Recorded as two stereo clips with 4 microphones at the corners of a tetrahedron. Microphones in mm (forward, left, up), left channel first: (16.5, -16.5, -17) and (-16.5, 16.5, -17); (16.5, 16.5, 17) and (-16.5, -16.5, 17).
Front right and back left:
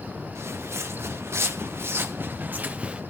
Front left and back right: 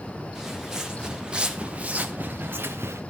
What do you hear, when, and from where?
0.3 s footsteps: 145° left, 3 m; by 3.0 s 160° right, 1.4 m